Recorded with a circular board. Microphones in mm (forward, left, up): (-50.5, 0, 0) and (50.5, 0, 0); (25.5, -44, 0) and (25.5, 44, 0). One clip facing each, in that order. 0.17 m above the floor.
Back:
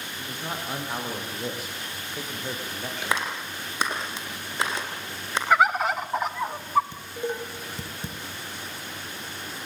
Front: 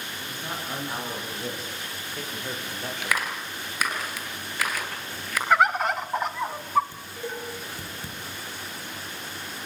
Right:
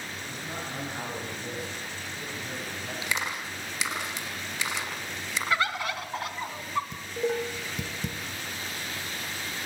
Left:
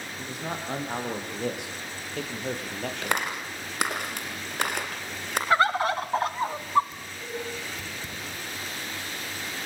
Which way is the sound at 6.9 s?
110° right.